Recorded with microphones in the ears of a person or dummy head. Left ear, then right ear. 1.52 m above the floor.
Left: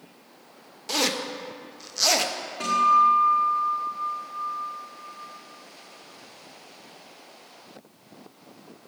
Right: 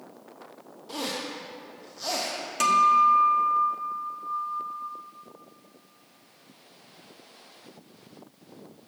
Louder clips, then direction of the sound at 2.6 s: Even; 70° right (ahead or behind).